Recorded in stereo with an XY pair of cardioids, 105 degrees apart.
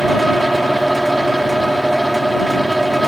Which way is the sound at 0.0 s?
10° right.